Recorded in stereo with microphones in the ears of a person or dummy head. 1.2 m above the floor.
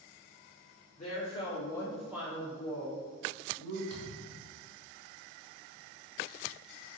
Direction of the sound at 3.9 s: 35° left (ahead or behind).